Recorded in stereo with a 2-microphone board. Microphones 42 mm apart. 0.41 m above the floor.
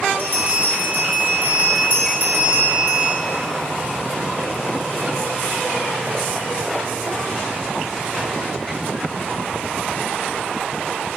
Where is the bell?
60° right (ahead or behind), 1.4 m.